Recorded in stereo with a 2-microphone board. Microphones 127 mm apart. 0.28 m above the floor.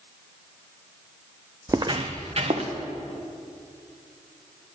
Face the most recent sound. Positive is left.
turn(degrees=-50)  # may be behind; listen again after turning